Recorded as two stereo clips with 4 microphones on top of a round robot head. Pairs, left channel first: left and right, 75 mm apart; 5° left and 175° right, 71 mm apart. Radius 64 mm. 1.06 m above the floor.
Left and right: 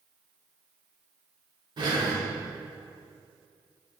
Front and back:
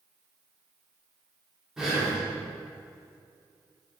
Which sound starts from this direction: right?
Breathing, at 1.8 s.